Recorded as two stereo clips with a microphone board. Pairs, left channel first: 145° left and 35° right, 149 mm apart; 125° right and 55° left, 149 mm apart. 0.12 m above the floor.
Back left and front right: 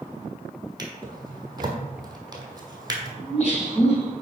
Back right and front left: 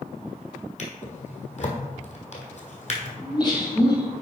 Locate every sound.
0.8 s a drawer: 95° right, 1.4 m
3.2 s laughter: 175° right, 2.5 m